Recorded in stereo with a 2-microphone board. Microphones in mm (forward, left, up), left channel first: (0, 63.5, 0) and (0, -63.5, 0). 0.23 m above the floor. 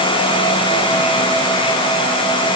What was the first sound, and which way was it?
Only background noise.